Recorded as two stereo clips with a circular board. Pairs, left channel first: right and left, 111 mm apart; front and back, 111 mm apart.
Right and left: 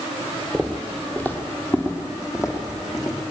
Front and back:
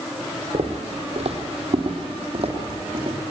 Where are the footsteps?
175° right, 2 m; by 3.2 s 145° right, 4 m.